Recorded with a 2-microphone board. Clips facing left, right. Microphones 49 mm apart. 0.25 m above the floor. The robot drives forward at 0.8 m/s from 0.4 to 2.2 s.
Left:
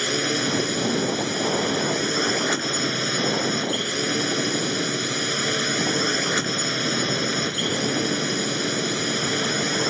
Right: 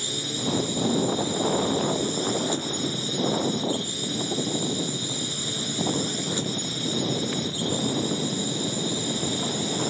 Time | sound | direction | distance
0.0 | a drone | 65° left (ahead or behind) | ?